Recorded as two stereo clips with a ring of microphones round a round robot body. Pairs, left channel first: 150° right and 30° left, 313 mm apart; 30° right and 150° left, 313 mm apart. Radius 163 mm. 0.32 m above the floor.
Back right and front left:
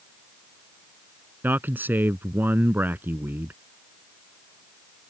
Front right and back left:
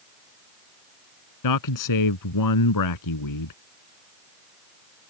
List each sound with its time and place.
1.4 s a man speaking: 55° right